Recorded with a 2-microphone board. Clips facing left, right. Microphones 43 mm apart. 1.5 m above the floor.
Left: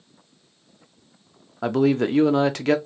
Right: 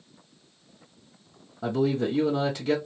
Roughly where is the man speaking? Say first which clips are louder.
Left 5 dB; left.